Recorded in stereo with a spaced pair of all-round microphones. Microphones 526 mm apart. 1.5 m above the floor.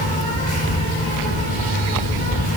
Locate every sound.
0.0 s an insect: 15° left (ahead or behind), 8 m